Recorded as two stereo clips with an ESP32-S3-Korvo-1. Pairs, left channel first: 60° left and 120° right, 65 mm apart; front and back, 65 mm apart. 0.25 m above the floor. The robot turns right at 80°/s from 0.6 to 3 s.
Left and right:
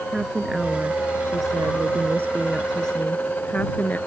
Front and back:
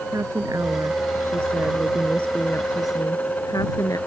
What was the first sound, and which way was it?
A woman speaking, 160° left.